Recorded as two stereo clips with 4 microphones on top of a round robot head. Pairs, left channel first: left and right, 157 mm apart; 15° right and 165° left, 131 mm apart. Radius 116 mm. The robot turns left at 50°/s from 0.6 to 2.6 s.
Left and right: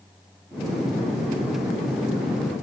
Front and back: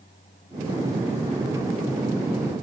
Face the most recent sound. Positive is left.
No sound to turn to.